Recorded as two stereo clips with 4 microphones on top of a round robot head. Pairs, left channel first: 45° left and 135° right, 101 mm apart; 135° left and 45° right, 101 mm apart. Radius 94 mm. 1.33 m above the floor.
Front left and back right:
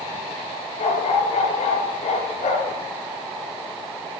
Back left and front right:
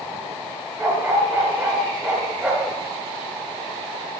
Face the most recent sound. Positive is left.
turn(degrees=30)